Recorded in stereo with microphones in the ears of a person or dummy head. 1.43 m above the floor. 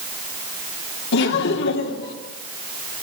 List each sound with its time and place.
1.1 s laughter: 80° left, 3 m; by 2.1 s 70° left (ahead or behind), 3.5 m